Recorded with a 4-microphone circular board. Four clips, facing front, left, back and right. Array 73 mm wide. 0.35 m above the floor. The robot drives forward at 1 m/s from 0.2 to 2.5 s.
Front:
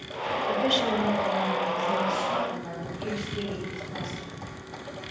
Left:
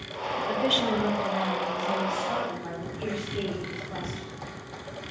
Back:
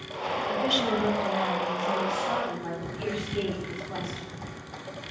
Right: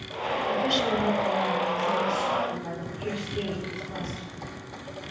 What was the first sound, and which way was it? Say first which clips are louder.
A woman speaking: even, front 2 dB; 45° left.